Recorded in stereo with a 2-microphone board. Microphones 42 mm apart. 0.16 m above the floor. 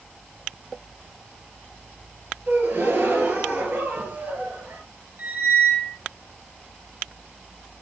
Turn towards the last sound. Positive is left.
turn(degrees=-50)  # may be behind; listen again after turning